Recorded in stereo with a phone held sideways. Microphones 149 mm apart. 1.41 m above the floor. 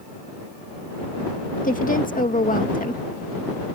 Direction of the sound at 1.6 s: 65° left (ahead or behind).